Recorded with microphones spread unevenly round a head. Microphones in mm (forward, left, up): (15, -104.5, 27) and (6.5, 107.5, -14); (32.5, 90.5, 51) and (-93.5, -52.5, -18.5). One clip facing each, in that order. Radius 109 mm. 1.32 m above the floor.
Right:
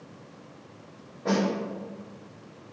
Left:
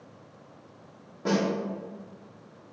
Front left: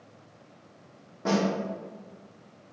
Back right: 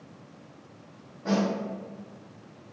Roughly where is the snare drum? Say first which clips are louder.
Right 1 dB, even; left.